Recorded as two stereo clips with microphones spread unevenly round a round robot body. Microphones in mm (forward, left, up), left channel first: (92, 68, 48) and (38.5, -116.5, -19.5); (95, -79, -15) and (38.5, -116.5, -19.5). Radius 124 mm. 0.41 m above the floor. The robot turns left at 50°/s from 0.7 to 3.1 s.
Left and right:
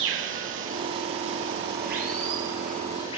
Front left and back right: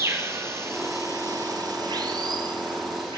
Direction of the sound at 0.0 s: 95° right.